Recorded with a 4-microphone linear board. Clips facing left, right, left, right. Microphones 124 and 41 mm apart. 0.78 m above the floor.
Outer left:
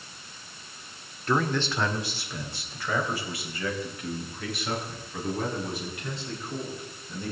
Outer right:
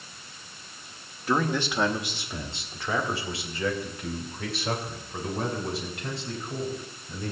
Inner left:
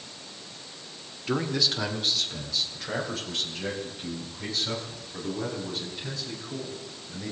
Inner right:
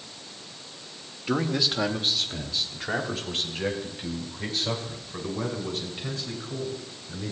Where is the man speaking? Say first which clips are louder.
Even, inner right 1 dB; 5° right (ahead or behind), 1.5 m; by 7.3 s 35° right (ahead or behind), 7 m.